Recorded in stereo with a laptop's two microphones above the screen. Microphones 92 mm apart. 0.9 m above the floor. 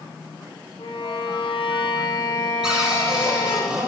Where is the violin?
70° left (ahead or behind), 3 m.